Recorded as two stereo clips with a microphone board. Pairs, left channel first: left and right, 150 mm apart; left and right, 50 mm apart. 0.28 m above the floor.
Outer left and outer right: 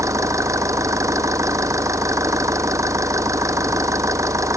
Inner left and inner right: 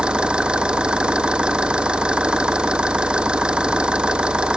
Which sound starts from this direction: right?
An engine running, at 0.0 s.